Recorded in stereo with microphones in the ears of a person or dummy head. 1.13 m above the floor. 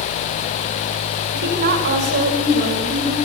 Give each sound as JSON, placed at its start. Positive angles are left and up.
{"t": 1.3, "sound": "a woman speaking", "side_deg": -50, "distance_m": 4.5}